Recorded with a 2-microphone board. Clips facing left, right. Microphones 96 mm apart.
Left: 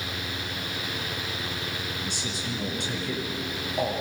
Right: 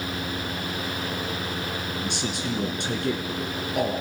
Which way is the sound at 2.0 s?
70° right (ahead or behind).